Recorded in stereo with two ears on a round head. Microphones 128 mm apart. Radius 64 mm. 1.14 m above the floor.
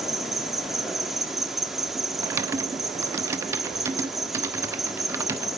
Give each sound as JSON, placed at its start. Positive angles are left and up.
{"t": 0.0, "sound": "an insect", "side_deg": 0, "distance_m": 1.0}
{"t": 2.2, "sound": "typing on a keyboard", "side_deg": -20, "distance_m": 0.9}